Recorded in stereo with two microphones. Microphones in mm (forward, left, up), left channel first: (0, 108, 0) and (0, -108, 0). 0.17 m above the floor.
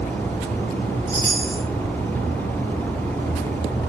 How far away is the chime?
About 3 m.